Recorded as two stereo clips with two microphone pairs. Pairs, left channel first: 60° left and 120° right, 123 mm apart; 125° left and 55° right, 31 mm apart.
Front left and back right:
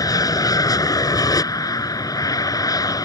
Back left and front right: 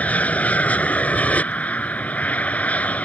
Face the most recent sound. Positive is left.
turn(degrees=110)